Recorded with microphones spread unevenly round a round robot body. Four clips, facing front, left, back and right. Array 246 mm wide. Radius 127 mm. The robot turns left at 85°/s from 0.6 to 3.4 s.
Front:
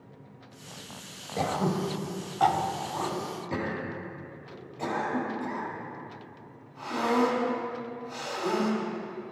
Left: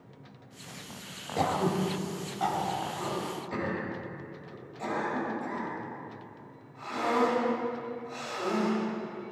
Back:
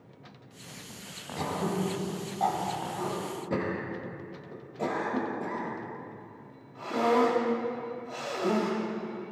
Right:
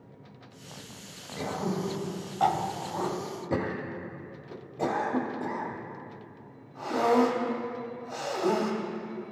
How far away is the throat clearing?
About 1.7 m.